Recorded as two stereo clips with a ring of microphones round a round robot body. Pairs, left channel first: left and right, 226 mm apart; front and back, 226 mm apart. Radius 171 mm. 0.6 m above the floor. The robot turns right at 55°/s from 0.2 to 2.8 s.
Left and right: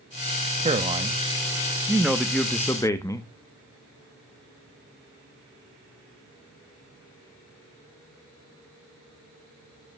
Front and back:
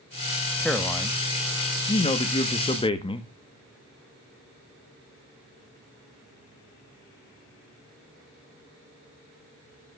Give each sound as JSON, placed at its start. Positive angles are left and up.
{"t": 0.6, "sound": "a man speaking", "azimuth_deg": -90, "distance_m": 1.2}